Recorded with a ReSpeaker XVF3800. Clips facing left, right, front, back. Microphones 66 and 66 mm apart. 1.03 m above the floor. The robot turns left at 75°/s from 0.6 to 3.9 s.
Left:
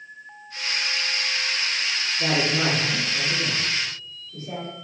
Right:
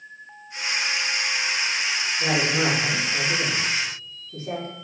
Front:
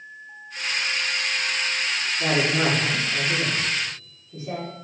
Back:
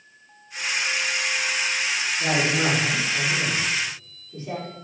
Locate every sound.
2.2 s a woman speaking: 55° left, 3 m; by 4.7 s 75° right, 3 m